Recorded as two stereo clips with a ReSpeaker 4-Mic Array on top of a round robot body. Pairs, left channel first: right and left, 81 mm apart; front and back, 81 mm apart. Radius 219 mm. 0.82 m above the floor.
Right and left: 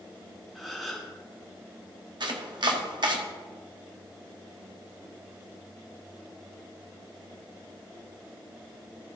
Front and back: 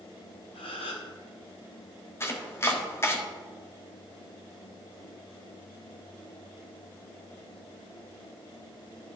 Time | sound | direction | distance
0.6 | a gasp | straight ahead | 0.7 m
2.2 | chopping | 60° left | 1.3 m